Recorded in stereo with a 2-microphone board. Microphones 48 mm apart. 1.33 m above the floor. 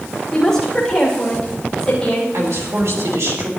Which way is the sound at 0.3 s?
10° left (ahead or behind).